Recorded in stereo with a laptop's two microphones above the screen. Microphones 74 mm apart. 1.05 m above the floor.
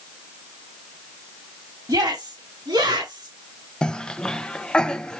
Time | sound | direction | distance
1.9 | a shout | 75° right (ahead or behind) | 2.5 m
3.8 | a cough | 10° left (ahead or behind) | 0.7 m